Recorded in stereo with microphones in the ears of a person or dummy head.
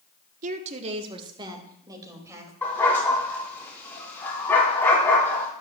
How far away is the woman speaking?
About 1.0 m.